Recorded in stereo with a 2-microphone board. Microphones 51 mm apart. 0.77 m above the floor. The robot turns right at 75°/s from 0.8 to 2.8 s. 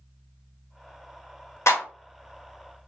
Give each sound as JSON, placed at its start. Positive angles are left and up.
{"t": 1.7, "sound": "a clap", "side_deg": 70, "distance_m": 1.3}